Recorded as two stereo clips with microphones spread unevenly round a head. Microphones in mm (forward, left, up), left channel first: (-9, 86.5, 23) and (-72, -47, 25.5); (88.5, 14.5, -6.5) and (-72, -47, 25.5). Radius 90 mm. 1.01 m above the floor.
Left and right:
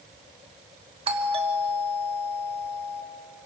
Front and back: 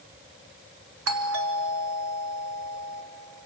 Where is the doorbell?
165° right, 3 m.